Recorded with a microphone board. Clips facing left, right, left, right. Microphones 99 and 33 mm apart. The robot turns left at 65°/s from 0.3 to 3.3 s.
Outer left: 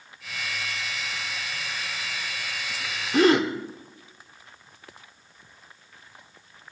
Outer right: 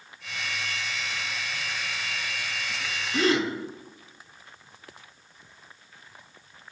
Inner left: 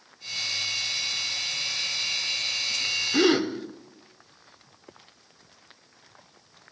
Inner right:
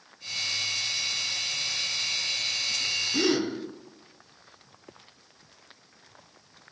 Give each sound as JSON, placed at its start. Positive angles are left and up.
{"t": 3.1, "sound": "a gasp", "side_deg": 55, "distance_m": 1.0}